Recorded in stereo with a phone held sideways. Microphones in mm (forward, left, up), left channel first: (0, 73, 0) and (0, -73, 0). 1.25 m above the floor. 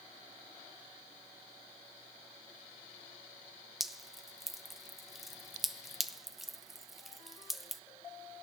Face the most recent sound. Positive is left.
turn(degrees=0)  # may be behind; listen again after turning